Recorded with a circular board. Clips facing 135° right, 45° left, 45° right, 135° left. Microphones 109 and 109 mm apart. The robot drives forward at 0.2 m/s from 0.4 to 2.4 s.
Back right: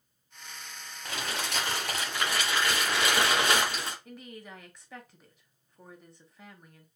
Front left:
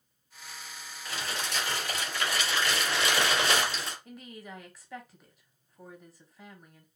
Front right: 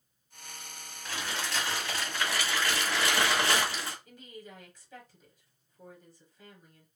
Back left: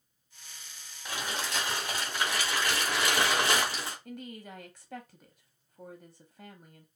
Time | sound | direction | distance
1.1 | crumpling | 150° right | 1.5 m
4.0 | a woman speaking | 135° left | 0.9 m